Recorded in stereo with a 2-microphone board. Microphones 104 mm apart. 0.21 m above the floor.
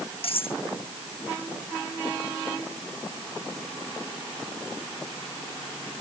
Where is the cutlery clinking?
65° left (ahead or behind).